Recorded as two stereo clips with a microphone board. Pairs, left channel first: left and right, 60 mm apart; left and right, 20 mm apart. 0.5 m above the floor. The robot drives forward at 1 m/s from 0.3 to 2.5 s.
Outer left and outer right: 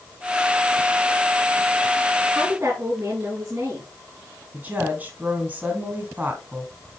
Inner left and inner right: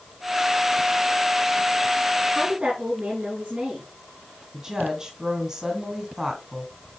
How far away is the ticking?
I don't hear ticking.